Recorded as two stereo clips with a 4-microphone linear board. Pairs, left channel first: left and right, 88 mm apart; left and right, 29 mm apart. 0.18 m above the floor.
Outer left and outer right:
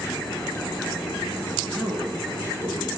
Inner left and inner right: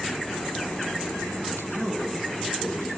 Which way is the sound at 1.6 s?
10° left (ahead or behind).